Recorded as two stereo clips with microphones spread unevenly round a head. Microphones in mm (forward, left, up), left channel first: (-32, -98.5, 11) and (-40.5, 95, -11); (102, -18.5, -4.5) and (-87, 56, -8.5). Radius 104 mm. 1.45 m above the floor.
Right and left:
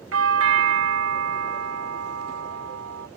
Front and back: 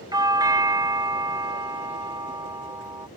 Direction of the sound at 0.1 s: 85° left.